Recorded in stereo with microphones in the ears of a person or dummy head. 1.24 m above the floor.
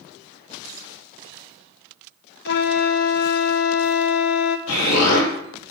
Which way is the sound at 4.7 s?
90° left.